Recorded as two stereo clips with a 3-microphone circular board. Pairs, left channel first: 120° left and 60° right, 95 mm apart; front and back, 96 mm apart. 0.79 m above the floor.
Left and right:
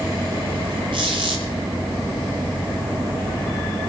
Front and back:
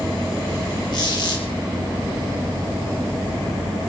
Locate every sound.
0.9 s a squeak: 35° right, 7 m